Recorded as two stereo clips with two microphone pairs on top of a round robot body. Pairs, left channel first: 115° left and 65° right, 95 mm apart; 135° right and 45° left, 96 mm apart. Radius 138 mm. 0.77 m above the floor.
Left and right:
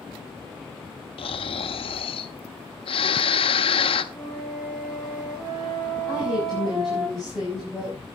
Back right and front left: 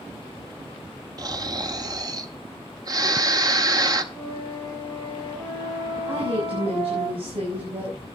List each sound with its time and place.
1.2 s snoring: 95° left, 1.4 m
4.1 s a flute: 25° left, 8 m
6.1 s a woman speaking: 25° left, 6.5 m